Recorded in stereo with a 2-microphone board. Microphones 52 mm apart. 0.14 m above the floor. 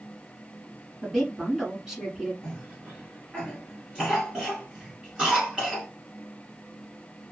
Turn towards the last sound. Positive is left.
turn(degrees=-20)  # may be behind; listen again after turning